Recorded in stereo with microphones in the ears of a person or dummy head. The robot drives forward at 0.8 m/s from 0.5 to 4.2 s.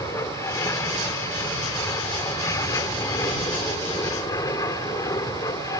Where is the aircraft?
20° left (ahead or behind).